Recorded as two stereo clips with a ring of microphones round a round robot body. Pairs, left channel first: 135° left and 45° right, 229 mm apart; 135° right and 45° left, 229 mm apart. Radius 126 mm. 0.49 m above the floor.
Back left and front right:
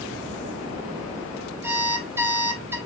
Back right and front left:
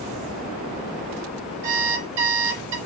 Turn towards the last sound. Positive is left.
turn(degrees=35)